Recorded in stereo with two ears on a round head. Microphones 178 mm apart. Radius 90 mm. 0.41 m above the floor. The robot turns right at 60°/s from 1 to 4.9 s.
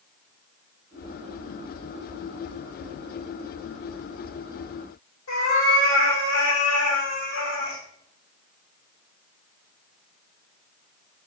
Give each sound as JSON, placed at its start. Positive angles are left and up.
{"t": 5.3, "sound": "a cat meowing", "side_deg": 75, "distance_m": 3.5}